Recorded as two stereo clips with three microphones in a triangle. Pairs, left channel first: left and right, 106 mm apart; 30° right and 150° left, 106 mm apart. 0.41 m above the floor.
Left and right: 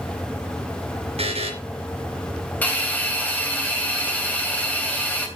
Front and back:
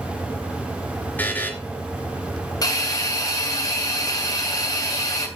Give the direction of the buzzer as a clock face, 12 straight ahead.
3 o'clock.